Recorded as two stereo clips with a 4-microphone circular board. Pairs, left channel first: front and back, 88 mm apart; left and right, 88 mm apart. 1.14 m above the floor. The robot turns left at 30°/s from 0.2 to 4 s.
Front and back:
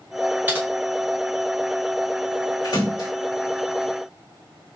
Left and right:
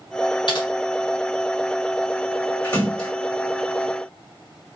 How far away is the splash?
About 2 m.